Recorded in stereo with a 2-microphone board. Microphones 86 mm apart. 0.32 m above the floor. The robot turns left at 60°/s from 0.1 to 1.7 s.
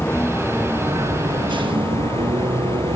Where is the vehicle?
15° left; by 3.0 s 80° right.